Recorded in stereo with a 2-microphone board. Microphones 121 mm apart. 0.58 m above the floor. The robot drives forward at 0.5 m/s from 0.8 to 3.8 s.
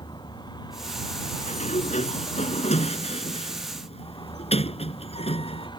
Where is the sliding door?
75° left (ahead or behind); by 5.7 s 55° left (ahead or behind).